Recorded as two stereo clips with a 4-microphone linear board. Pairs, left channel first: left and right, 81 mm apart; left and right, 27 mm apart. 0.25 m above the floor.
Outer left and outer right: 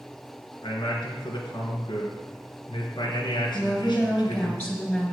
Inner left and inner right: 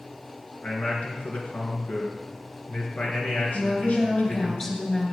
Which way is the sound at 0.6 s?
70° left (ahead or behind).